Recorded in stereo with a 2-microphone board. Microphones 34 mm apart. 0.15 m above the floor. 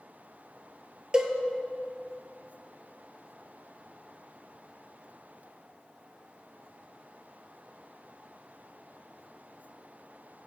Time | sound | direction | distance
1.1 | a cowbell | 25° right (ahead or behind) | 1.1 m